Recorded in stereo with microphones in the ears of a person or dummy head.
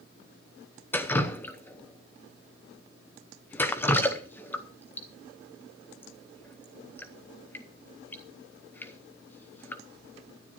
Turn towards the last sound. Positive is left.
turn(degrees=20)  # may be behind; listen again after turning